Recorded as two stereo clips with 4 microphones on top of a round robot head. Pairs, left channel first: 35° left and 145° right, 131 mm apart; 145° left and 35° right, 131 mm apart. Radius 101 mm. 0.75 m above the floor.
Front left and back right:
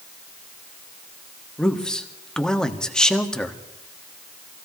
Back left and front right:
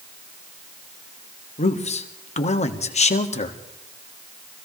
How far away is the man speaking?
About 1.5 m.